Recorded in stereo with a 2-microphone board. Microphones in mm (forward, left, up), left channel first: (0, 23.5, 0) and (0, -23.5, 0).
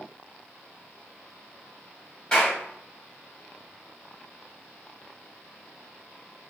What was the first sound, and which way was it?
A clap, 20° left (ahead or behind).